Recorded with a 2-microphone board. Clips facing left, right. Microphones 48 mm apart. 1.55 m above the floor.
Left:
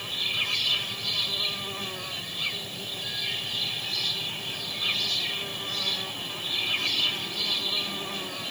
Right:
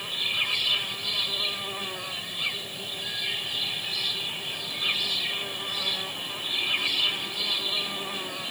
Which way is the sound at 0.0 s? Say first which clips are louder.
Right 1 dB; 10° right (ahead or behind).